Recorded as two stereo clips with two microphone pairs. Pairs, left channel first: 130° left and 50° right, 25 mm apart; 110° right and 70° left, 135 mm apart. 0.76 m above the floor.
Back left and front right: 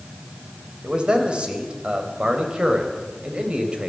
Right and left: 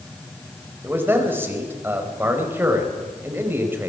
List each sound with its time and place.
0.8 s a man speaking: 5° right, 4 m